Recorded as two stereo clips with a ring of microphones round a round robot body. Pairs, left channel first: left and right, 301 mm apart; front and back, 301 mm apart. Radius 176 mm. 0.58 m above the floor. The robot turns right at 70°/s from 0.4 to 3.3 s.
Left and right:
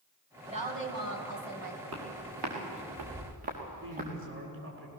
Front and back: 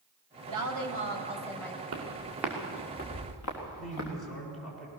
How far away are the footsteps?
About 5.5 m.